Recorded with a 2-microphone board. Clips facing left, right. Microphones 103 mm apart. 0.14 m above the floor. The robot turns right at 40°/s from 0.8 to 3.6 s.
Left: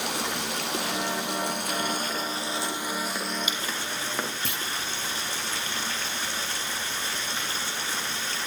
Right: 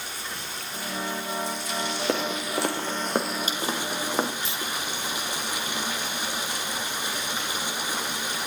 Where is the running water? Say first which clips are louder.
Left 7 dB; 85° left, 1.9 m; by 8.5 s 165° right, 1.9 m.